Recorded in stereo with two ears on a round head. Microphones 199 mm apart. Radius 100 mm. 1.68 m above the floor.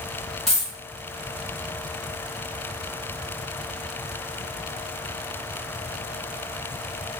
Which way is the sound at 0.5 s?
Centre (ahead or behind).